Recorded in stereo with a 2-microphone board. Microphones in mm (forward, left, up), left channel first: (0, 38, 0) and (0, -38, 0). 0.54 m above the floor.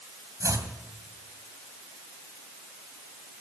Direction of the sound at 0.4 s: 45° right (ahead or behind).